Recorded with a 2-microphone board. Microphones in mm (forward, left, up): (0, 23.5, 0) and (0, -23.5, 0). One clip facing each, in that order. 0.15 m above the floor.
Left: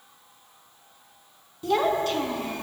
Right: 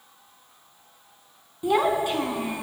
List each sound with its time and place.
1.6 s a child speaking: 20° right (ahead or behind), 0.6 m